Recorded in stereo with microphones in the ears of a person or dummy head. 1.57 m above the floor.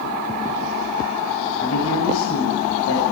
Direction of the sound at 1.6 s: 85° left.